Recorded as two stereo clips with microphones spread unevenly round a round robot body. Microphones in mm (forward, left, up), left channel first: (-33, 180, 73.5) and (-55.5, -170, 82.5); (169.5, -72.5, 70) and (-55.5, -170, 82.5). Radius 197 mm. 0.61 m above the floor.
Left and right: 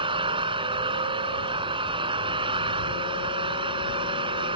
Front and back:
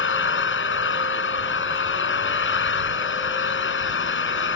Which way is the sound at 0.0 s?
15° right.